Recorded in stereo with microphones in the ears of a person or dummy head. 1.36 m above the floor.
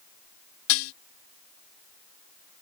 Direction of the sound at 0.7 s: 75° left (ahead or behind).